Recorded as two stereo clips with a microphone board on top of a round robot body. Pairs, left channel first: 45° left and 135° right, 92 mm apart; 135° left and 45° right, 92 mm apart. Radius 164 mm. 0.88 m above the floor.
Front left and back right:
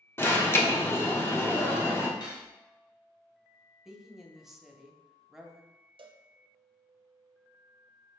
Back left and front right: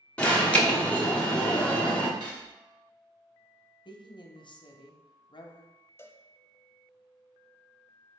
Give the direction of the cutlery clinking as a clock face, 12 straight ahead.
12 o'clock.